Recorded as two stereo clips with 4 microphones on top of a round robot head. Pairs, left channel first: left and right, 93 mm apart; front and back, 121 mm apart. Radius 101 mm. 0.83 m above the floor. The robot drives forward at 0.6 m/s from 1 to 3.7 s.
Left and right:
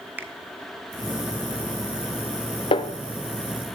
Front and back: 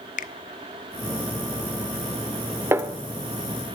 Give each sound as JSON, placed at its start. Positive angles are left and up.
{"t": 0.2, "sound": "a finger snap", "azimuth_deg": -15, "distance_m": 0.6}
{"t": 2.7, "sound": "a snare drum", "azimuth_deg": 110, "distance_m": 0.9}